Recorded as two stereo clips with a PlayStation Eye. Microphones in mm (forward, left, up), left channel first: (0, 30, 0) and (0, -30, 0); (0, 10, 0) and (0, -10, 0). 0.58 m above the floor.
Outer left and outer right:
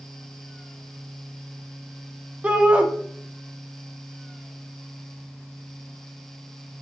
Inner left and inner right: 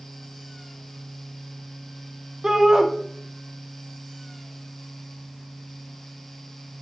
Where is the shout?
20° right (ahead or behind), 0.6 m.